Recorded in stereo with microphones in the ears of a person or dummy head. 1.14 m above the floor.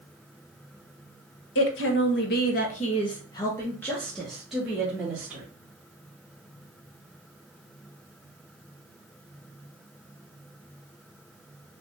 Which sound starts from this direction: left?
A woman speaking, at 1.6 s.